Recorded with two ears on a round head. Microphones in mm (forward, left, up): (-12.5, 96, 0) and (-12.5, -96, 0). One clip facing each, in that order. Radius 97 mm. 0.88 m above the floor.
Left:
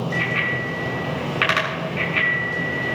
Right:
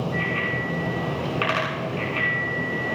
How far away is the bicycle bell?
About 6.5 m.